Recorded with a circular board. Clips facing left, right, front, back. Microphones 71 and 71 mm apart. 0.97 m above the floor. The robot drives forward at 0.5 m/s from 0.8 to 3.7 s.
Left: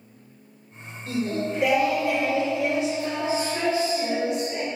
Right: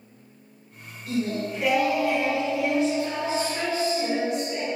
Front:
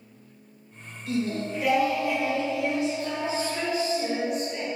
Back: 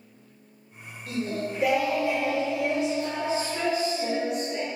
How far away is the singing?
About 1.3 m.